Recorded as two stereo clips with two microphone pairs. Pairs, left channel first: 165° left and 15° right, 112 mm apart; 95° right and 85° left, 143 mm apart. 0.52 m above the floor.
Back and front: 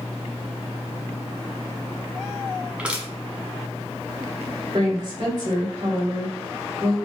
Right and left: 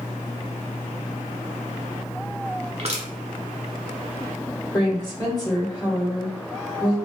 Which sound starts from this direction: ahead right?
A woman speaking, at 4.7 s.